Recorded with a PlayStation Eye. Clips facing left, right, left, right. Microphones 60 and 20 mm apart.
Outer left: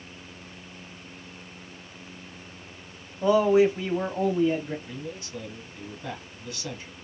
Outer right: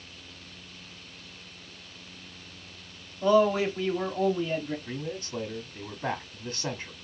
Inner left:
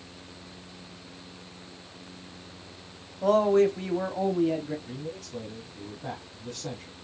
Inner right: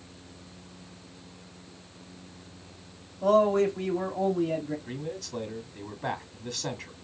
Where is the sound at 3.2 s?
20° left (ahead or behind), 0.9 m.